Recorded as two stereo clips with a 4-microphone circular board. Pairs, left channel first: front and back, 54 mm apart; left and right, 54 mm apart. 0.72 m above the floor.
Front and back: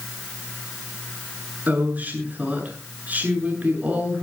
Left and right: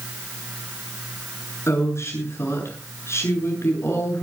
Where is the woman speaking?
120° left, 7.5 m.